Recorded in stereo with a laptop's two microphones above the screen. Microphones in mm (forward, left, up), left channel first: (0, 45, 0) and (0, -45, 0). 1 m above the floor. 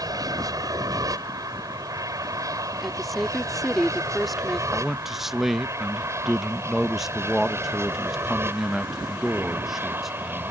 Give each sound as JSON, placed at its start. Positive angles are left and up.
{"t": 0.0, "sound": "an aircraft", "side_deg": -40}
{"t": 2.8, "sound": "a woman speaking", "side_deg": 0}
{"t": 4.7, "sound": "a man speaking", "side_deg": -5}